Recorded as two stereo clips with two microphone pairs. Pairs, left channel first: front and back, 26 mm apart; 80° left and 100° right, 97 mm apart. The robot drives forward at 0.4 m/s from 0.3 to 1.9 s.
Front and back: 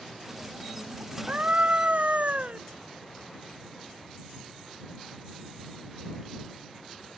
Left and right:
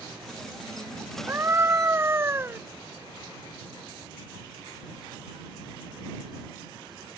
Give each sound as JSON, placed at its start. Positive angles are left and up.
{"t": 1.3, "sound": "a scream", "azimuth_deg": -165}